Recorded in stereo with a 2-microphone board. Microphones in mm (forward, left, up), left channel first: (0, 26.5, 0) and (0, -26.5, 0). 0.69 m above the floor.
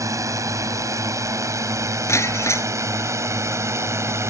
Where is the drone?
75° right (ahead or behind); by 4.3 s 55° right (ahead or behind).